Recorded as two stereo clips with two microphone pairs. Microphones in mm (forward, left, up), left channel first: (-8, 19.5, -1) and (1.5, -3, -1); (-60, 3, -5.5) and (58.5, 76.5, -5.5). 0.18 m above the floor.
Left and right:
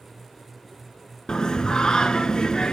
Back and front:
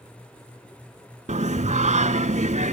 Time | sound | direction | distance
1.3 | singing | 55° left | 0.6 m